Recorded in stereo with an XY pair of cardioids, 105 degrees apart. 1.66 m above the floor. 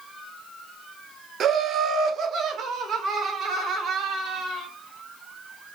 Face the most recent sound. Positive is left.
turn(degrees=-75)